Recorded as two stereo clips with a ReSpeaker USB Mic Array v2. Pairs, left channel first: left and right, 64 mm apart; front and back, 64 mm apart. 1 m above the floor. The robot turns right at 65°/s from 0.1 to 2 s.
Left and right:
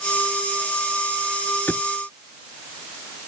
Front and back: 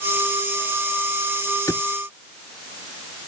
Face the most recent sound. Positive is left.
turn(degrees=50)